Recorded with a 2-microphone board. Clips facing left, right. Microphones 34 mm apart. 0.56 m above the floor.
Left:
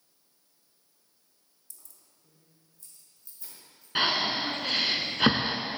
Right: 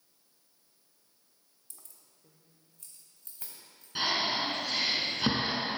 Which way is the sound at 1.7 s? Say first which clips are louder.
Right 1 dB; 45° right (ahead or behind).